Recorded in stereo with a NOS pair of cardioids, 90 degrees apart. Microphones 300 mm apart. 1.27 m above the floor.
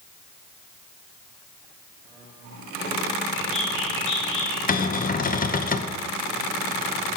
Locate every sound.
3.4 s a bird: 45° left, 6 m
4.7 s a cupboard door: 30° left, 1.0 m